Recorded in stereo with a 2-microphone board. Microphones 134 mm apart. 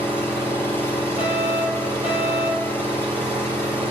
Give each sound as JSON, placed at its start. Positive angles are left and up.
{"t": 0.0, "sound": "an engine running", "side_deg": 20, "distance_m": 6.5}
{"t": 1.2, "sound": "a fire alarm", "side_deg": 45, "distance_m": 4.0}